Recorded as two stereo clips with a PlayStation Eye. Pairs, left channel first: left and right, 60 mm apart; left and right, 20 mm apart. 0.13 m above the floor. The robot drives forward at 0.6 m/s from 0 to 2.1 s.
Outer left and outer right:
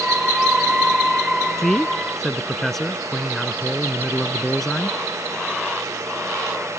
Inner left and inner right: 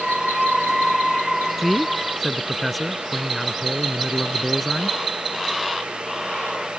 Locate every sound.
1.6 s a man speaking: 5° left (ahead or behind)